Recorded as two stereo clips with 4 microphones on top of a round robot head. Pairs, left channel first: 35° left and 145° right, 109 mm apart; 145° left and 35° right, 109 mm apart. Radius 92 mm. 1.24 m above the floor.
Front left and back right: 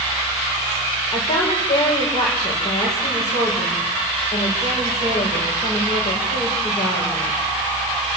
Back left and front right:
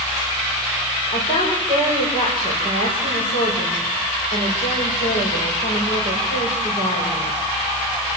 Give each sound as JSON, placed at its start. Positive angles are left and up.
{"t": 1.1, "sound": "a woman speaking", "azimuth_deg": 95, "distance_m": 6.5}